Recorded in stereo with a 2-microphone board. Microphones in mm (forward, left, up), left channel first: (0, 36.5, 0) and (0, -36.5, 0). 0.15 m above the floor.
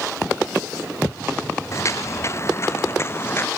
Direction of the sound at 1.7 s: 45° left (ahead or behind).